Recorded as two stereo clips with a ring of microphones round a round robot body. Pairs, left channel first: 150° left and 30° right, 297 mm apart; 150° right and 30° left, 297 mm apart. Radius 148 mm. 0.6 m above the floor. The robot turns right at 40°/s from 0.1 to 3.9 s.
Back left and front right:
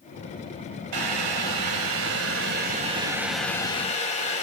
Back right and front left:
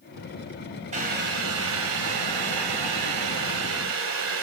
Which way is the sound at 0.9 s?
40° right.